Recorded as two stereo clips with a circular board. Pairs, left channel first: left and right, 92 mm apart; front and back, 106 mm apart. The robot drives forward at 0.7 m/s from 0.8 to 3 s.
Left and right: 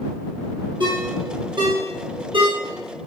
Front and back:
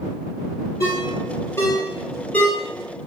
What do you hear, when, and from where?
0.8 s a ringtone: 55° right, 3 m; by 2.5 s 80° right, 3 m